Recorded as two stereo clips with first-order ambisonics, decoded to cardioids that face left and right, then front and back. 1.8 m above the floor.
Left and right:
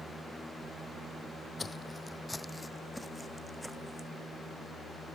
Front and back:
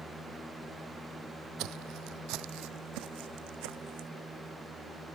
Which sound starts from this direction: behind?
Footsteps, at 1.6 s.